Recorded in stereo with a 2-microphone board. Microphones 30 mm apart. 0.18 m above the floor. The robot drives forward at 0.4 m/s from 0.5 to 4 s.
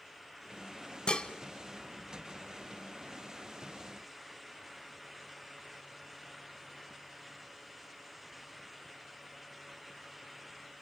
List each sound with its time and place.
1.1 s dishes clattering: 35° left (ahead or behind), 0.8 m